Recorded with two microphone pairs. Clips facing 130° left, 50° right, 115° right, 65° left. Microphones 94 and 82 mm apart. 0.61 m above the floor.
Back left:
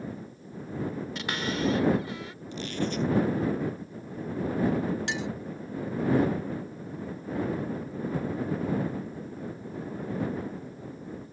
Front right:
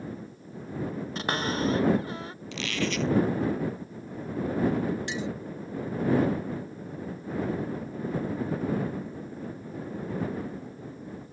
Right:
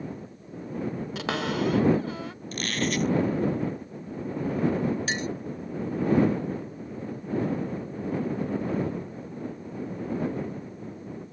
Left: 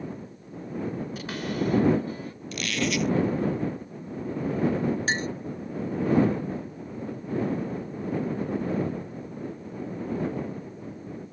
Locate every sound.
1.1 s a cupboard door: 110° right
2.5 s a squeak: 65° right
5.1 s a clink: 115° left